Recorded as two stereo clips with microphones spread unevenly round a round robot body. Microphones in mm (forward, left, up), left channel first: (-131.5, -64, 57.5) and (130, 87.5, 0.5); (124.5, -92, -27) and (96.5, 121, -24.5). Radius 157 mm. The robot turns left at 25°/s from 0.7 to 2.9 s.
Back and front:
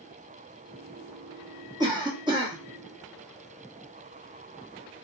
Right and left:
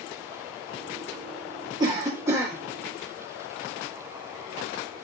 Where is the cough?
50° left, 0.8 m; by 2.5 s 30° left, 0.8 m.